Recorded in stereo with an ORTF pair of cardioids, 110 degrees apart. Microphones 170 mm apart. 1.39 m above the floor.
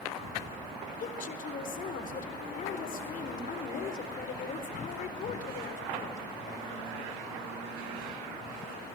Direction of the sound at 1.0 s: 55° left.